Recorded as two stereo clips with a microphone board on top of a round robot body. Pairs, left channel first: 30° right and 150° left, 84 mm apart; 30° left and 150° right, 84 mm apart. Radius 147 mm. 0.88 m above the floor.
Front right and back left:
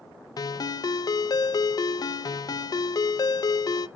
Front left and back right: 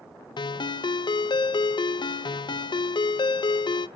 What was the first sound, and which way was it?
A ringtone, 10° left.